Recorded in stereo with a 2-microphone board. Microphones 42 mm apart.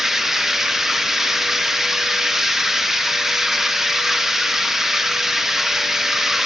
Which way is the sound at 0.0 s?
5° right (ahead or behind).